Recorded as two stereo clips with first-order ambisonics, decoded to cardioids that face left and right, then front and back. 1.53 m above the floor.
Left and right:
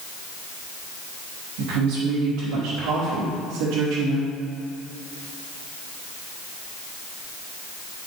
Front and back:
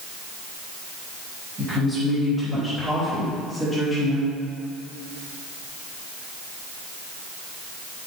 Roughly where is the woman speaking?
Right.